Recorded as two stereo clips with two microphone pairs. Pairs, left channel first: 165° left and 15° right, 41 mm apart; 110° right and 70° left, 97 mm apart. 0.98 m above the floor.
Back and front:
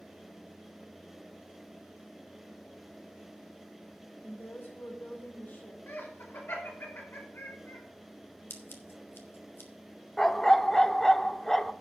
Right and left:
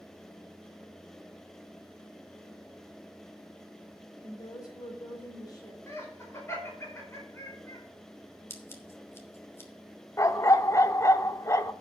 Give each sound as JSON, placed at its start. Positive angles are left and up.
{"t": 4.2, "sound": "a woman speaking", "azimuth_deg": -160, "distance_m": 3.5}
{"t": 5.9, "sound": "laughter", "azimuth_deg": -170, "distance_m": 4.5}
{"t": 8.5, "sound": "scissors", "azimuth_deg": -175, "distance_m": 1.6}
{"t": 10.2, "sound": "a dog barking", "azimuth_deg": -120, "distance_m": 0.6}